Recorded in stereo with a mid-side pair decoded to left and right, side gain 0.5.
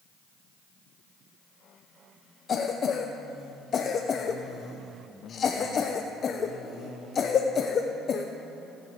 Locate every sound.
2.5 s a cough: 50° left, 0.7 m